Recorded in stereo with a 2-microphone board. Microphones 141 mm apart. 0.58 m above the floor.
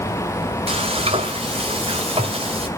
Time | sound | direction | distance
0.7 | frying | 45° right (ahead or behind) | 2.5 m